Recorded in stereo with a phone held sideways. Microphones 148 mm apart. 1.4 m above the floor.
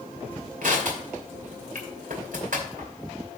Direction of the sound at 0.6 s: 65° right (ahead or behind).